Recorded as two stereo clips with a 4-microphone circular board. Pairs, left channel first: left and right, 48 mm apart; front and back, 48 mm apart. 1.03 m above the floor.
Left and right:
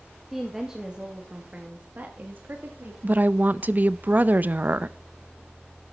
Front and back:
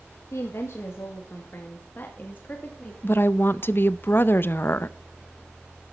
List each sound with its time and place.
0.3 s a woman speaking: 5° right, 1.8 m; by 2.9 s 55° right, 2.5 m
3.0 s a woman speaking: 40° right, 0.6 m